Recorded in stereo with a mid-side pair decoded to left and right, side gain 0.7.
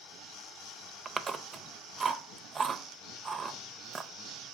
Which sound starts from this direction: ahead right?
Chewing, at 1.1 s.